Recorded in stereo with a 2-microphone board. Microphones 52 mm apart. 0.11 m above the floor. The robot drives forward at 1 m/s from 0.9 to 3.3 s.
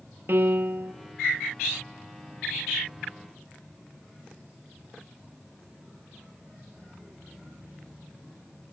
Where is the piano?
55° right (ahead or behind), 0.5 m; by 0.9 s 60° right (ahead or behind), 0.5 m.